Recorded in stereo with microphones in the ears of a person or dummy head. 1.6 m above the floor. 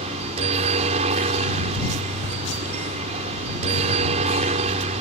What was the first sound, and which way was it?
A helicopter, 35° right (ahead or behind).